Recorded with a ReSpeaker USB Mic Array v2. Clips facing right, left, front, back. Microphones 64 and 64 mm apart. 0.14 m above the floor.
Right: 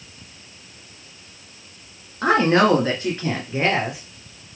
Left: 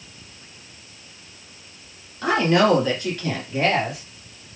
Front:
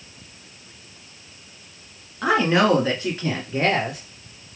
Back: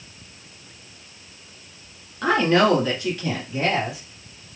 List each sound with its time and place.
2.2 s a woman speaking: 80° right, 1.3 m; by 4.0 s 20° right, 1.9 m